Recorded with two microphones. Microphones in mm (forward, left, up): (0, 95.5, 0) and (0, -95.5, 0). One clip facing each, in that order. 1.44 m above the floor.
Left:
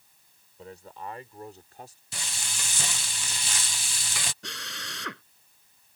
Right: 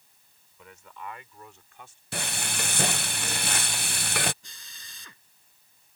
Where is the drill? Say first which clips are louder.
Left 15 dB; 75° left (ahead or behind).